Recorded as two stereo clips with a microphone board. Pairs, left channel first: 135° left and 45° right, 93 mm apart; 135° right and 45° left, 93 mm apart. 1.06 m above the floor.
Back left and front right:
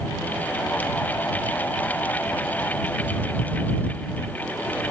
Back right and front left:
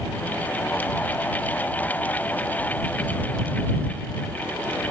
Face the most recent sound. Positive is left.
No sound to turn to.